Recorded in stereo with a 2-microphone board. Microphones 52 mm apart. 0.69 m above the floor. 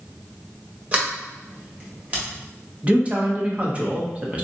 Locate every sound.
0.9 s a sliding door: 30° right (ahead or behind), 1.4 m
2.8 s a man speaking: 25° right (ahead or behind), 0.9 m